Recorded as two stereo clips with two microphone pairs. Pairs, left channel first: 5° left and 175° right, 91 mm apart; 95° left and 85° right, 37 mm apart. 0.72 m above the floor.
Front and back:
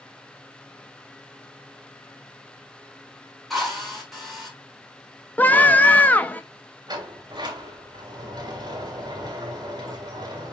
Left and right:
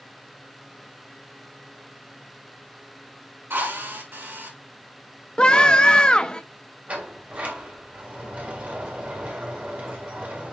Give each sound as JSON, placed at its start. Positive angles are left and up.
{"t": 3.5, "sound": "a drill", "azimuth_deg": -85, "distance_m": 6.5}
{"t": 5.4, "sound": "a scream", "azimuth_deg": 60, "distance_m": 1.0}
{"t": 6.9, "sound": "a sliding door", "azimuth_deg": -135, "distance_m": 4.0}